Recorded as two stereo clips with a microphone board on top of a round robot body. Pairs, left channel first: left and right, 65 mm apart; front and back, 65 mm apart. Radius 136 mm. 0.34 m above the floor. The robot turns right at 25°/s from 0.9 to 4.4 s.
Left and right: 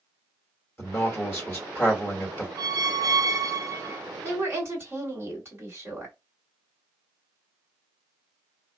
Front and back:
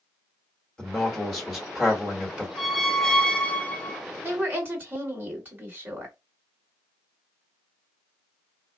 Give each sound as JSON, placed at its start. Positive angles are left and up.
{"t": 0.8, "sound": "a man speaking", "azimuth_deg": 80, "distance_m": 1.5}
{"t": 2.6, "sound": "a squeak", "azimuth_deg": -95, "distance_m": 0.7}
{"t": 4.2, "sound": "a woman speaking", "azimuth_deg": -130, "distance_m": 2.0}